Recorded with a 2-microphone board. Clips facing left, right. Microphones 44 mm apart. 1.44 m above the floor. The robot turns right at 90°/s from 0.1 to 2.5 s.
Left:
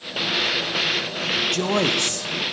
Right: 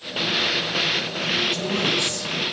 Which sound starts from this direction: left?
A man speaking, at 1.5 s.